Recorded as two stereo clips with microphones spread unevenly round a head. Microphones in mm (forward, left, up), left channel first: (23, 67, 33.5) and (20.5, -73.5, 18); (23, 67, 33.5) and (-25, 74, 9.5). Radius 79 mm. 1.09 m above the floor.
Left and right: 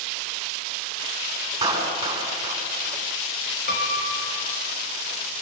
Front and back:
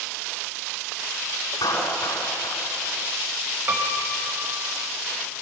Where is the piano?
125° left, 4 m.